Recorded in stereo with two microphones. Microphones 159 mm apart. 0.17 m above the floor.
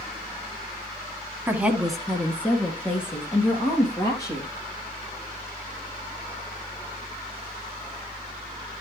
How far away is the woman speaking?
About 1.1 m.